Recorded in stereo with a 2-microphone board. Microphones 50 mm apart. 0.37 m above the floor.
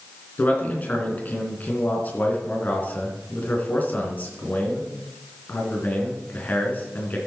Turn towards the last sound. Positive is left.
turn(degrees=35)  # may be behind; listen again after turning